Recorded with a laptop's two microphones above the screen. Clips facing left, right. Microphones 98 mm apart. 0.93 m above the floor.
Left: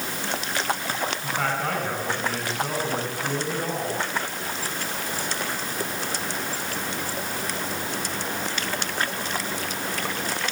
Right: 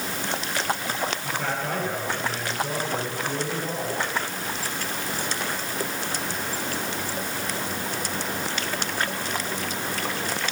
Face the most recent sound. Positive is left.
turn(degrees=85)